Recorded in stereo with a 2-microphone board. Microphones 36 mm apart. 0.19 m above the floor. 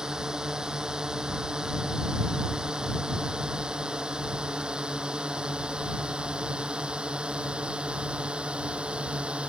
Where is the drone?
20° right (ahead or behind); by 9.5 s 30° right (ahead or behind).